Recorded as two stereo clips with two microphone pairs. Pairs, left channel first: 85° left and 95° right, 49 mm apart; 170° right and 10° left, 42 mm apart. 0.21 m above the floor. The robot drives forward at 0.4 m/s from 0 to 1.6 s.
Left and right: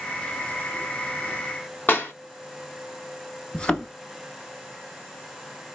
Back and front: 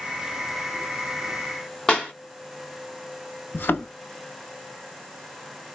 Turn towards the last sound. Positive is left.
turn(degrees=160)